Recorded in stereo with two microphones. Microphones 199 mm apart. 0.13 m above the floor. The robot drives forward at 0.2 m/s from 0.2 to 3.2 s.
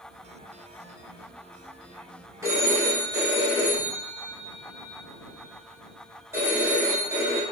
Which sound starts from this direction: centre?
A phone ringing, at 2.4 s.